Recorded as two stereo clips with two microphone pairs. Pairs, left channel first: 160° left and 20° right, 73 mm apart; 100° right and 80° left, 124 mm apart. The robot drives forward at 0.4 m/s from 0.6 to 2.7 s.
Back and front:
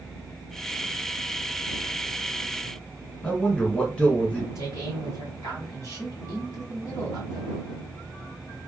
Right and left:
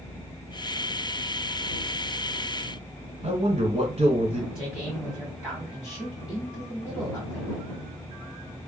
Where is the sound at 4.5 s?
155° left, 1.7 m.